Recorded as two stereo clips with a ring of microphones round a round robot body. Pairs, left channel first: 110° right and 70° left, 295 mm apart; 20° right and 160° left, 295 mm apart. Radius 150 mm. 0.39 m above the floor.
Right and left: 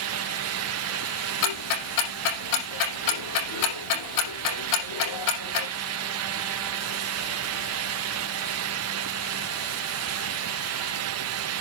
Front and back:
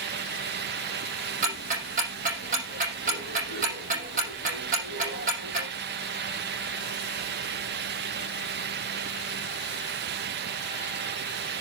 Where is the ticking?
135° right, 5.5 m.